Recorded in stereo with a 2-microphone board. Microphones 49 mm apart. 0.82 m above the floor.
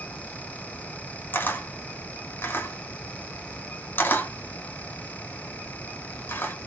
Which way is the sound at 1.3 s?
45° left (ahead or behind).